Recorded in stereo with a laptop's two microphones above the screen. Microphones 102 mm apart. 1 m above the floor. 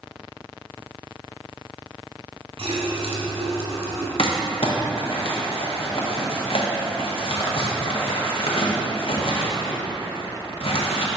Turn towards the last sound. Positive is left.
turn(degrees=65)  # may be behind; listen again after turning